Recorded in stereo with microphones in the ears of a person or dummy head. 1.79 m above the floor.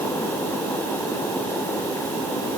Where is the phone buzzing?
No phone buzzing in this recording.